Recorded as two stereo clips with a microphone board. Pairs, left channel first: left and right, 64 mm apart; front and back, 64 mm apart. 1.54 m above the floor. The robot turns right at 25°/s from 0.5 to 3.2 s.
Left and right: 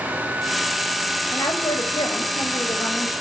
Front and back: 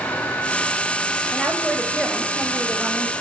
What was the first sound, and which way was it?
A woman speaking, 75° left.